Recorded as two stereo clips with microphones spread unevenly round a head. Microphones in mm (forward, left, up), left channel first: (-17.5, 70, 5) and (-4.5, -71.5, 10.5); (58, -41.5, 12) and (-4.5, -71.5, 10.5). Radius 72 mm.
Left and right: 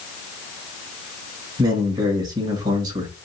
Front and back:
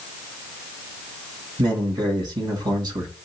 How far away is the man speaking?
About 2 m.